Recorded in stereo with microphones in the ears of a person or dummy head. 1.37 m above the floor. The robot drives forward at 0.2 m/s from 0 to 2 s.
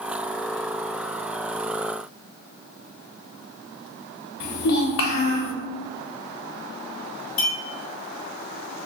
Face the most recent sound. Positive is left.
turn(degrees=60)  # may be behind; listen again after turning